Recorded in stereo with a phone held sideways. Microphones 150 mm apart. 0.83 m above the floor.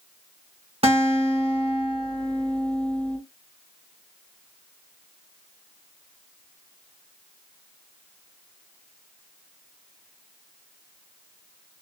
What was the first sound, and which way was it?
A guitar, 40° right (ahead or behind).